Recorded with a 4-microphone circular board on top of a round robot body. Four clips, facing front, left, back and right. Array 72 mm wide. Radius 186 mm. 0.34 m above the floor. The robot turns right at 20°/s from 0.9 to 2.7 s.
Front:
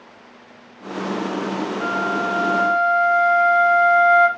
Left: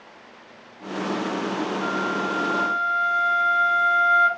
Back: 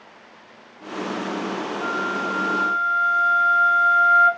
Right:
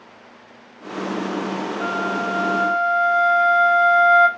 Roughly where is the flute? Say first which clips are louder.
Right 4 dB, front 3 dB; ahead right.